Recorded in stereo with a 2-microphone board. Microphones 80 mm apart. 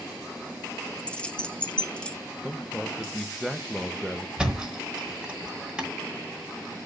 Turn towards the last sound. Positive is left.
turn(degrees=-10)  # may be behind; listen again after turning